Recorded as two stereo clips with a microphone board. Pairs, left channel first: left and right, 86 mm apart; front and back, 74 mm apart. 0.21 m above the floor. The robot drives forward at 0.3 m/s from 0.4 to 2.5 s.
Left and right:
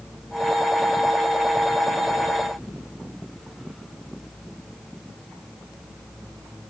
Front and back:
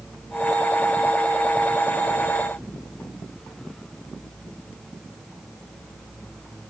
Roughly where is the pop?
I don't hear a pop.